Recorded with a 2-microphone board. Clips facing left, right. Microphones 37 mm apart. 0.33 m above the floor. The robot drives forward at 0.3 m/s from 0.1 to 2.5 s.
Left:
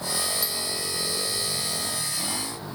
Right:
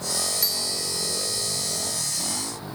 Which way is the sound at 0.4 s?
55° right (ahead or behind).